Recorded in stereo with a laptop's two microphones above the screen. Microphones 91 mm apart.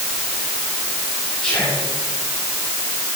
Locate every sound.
1.4 s whispering: 5° right (ahead or behind), 6 m